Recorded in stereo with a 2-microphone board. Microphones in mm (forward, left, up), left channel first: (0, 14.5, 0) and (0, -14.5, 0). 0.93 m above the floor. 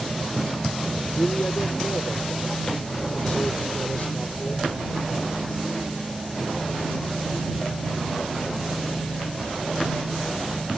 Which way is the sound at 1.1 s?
65° left (ahead or behind).